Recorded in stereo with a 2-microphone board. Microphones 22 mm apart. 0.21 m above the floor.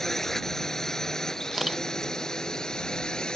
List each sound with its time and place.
0.0 s a drone: 15° left (ahead or behind); by 3.4 s 35° left (ahead or behind)
1.5 s a camera shutter: 10° right (ahead or behind)